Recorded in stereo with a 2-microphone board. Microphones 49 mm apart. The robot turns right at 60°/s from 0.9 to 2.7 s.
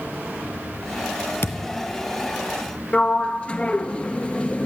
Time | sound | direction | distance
1.4 | a thud | 55° left (ahead or behind) | 2 m
2.9 | a sliding door | 25° left (ahead or behind) | 1.5 m